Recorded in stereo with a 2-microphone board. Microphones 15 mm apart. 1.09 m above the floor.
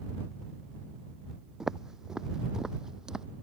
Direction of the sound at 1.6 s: 35° right (ahead or behind).